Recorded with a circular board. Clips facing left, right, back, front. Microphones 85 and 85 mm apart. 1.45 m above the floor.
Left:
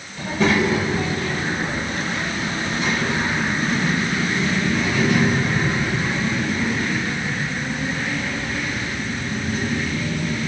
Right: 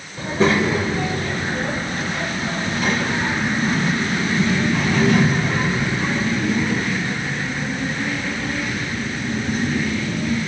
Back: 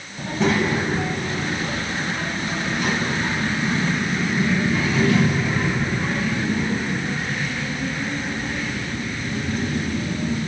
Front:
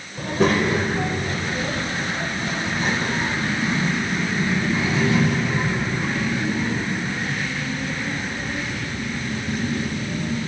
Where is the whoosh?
No whoosh in this recording.